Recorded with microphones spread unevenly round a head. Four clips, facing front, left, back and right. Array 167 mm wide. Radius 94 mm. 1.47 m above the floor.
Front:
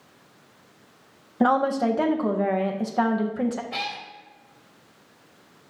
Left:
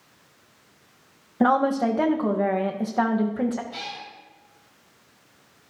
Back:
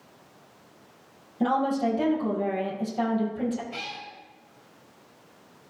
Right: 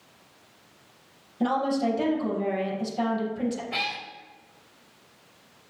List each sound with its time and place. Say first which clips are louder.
1.4 s a woman speaking: left 5 dB, front 4 dB; 40° left, 1.8 m
3.7 s a cat meowing: right 4 dB, front 5 dB; 30° right, 2.0 m